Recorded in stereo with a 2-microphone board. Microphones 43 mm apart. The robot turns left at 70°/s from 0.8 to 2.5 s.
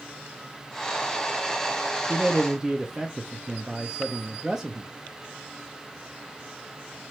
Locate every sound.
2.1 s a man speaking: 30° right (ahead or behind), 0.5 m; by 4.9 s 10° right (ahead or behind), 0.5 m